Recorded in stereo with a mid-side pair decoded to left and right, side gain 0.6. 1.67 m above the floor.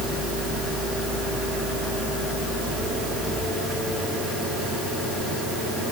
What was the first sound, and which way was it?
Only background noise.